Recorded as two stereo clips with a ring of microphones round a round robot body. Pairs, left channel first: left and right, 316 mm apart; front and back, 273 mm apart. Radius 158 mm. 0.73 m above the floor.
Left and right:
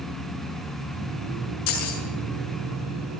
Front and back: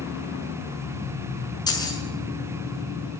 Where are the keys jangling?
75° left, 7 m.